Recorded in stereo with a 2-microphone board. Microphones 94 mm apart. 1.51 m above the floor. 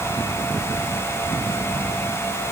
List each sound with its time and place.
Only background noise.